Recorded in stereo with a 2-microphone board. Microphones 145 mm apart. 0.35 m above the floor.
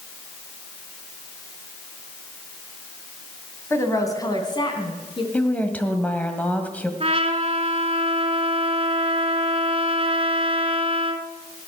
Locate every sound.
3.7 s a woman speaking: 15° left (ahead or behind), 2.5 m; by 5.2 s 40° left (ahead or behind), 4 m
5.3 s a woman speaking: 10° left (ahead or behind), 1.7 m
7.0 s a trumpet: 45° right (ahead or behind), 1.2 m